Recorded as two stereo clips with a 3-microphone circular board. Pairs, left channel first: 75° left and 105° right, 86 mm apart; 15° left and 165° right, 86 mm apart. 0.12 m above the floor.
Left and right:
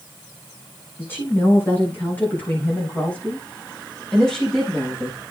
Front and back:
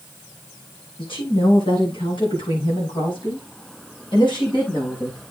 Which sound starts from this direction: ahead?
A woman speaking, at 1.0 s.